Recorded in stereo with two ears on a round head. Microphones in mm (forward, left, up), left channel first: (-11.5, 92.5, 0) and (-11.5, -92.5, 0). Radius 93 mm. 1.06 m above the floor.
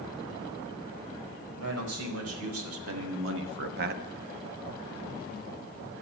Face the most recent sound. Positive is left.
turn(degrees=-30)  # may be behind; listen again after turning